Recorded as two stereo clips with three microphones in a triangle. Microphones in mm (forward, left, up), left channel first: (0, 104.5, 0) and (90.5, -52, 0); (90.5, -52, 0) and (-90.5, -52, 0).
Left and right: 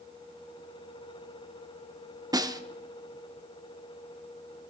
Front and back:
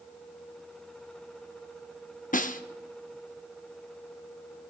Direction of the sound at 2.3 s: Straight ahead.